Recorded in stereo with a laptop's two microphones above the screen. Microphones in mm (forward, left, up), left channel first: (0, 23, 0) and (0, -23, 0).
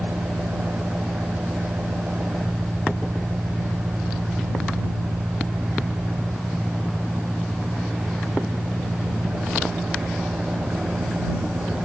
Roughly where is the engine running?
Right.